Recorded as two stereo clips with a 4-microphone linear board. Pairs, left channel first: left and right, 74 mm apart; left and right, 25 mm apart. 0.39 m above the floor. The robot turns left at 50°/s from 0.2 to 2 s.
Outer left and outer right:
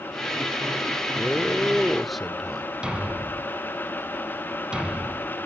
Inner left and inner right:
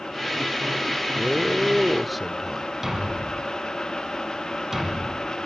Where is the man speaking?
15° left (ahead or behind), 0.9 m; by 2.7 s centre (ahead or behind), 0.9 m.